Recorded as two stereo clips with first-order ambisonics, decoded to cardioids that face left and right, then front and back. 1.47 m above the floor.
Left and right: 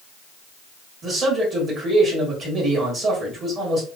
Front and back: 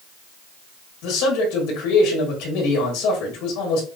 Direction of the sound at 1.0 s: 25° right.